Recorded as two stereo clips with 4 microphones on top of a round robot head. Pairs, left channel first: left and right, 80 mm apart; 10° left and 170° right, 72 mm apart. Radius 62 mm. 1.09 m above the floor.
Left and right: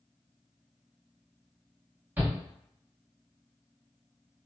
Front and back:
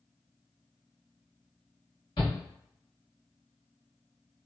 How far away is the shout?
About 1.6 m.